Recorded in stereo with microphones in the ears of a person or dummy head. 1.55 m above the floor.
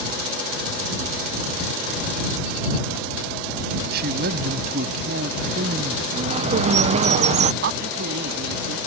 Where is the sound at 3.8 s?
55° right (ahead or behind).